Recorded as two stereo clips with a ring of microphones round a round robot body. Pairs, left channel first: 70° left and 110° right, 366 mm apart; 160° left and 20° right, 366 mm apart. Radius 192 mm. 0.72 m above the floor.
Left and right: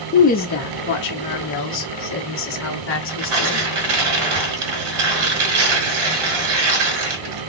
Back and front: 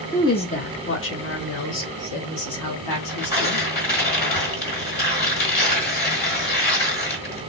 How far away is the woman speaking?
About 0.7 m.